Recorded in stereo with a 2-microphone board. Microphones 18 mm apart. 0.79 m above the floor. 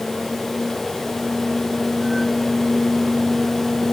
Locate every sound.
Only background noise.